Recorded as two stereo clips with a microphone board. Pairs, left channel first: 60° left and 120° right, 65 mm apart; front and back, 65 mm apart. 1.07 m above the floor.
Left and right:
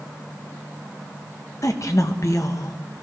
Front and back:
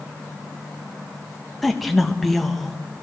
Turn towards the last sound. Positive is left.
turn(degrees=90)